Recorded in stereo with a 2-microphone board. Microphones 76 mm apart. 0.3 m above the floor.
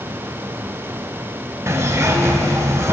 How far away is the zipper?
About 0.9 m.